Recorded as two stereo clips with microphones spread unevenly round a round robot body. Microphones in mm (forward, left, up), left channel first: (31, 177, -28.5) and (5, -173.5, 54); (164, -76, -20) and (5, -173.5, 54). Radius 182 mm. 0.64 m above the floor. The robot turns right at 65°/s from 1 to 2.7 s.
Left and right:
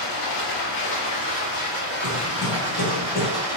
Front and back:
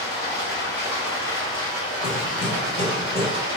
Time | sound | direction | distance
0.0 | running water | 75° left | 2.5 m
2.0 | hammering | 15° right | 1.5 m